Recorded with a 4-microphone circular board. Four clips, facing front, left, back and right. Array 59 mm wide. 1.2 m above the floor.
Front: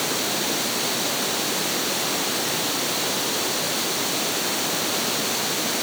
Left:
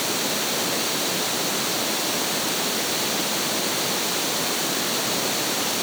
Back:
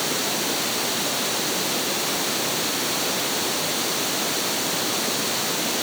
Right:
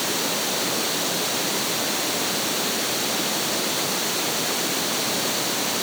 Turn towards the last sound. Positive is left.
No sound to turn to.